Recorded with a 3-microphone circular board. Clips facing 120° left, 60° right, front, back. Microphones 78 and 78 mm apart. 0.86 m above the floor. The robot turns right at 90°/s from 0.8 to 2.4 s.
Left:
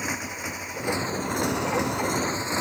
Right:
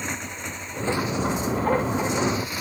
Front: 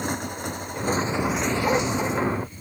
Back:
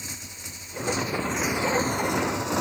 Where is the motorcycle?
35° left; by 2.6 s 175° right.